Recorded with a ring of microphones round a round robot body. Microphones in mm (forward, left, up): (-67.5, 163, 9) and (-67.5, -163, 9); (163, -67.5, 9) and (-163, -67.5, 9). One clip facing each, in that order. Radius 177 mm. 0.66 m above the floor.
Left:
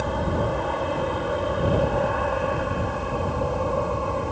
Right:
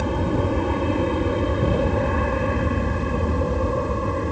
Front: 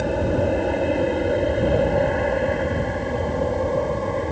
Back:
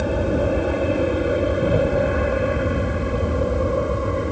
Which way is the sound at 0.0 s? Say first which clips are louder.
Right 3 dB, back 1 dB; 95° right.